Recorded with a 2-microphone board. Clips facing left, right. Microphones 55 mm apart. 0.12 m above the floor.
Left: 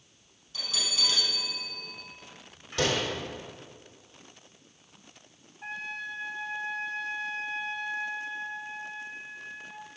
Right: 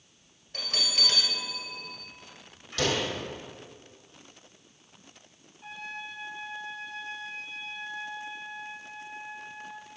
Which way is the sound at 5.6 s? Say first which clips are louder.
Left 3 dB; 45° left (ahead or behind).